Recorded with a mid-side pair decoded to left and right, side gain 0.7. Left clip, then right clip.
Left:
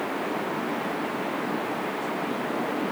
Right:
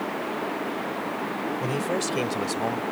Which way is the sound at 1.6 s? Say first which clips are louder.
Right 2 dB; 65° right.